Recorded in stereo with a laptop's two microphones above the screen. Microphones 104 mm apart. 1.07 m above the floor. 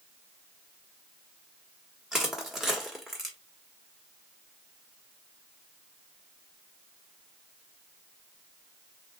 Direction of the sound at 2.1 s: 5° right (ahead or behind).